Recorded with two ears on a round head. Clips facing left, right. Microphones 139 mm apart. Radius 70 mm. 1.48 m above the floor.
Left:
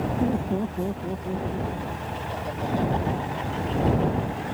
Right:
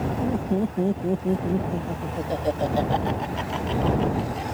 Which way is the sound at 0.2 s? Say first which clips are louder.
Right 2 dB; 5° left (ahead or behind).